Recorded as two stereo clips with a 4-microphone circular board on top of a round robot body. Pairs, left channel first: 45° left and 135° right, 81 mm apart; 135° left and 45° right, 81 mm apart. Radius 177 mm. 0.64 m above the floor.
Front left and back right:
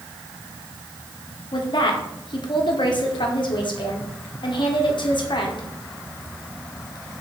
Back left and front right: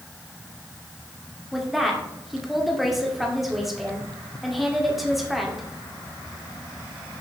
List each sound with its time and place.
1.5 s a woman speaking: 45° left, 2 m